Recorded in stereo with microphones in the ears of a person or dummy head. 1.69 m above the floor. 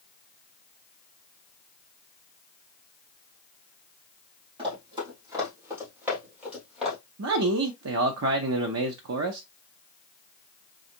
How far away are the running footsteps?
About 3.5 m.